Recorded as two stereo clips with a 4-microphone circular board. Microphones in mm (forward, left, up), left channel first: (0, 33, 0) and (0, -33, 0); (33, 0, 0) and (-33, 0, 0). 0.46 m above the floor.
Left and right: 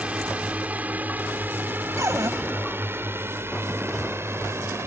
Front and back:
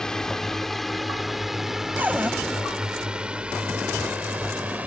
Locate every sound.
0.0 s a drone: 65° right; by 4.9 s 120° right
2.0 s a cupboard door: 120° right